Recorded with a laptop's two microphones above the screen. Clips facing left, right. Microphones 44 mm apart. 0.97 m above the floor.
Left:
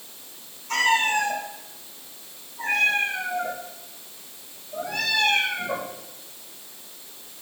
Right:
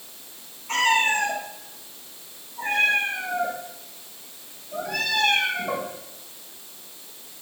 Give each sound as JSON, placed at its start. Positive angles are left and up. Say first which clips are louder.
{"t": 0.7, "sound": "a cat meowing", "louder": "even", "side_deg": -50, "distance_m": 7.5}